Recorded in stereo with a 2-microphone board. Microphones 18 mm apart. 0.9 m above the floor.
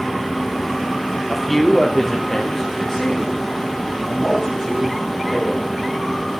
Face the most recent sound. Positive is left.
turn(degrees=30)  # may be behind; listen again after turning